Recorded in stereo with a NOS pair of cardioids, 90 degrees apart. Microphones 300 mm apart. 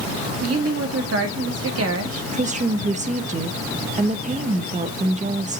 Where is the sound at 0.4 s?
55° right, 2 m.